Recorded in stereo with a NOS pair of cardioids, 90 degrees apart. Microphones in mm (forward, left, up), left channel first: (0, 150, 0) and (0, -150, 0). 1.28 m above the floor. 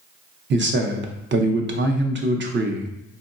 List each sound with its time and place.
0.5 s a man speaking: 40° right, 0.6 m